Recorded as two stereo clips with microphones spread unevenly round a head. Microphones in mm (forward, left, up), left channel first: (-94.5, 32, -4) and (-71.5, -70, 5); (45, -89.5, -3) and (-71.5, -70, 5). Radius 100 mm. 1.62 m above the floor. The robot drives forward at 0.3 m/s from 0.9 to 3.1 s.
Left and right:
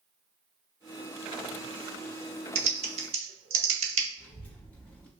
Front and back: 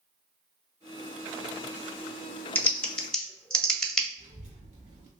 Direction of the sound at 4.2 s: Straight behind.